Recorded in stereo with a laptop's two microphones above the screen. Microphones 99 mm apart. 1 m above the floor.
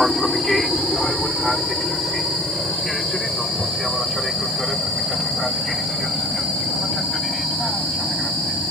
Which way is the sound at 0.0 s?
Centre (ahead or behind).